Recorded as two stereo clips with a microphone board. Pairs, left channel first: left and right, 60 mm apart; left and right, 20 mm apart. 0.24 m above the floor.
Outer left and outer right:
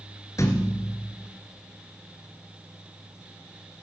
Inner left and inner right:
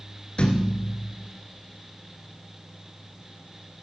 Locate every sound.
0.4 s a thud: 55° left (ahead or behind), 2.0 m